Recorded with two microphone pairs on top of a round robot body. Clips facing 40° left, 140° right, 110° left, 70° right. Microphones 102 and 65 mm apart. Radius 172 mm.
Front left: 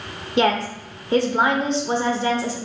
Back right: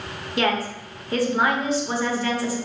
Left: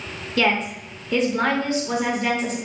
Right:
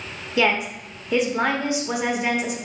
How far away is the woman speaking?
About 1.1 m.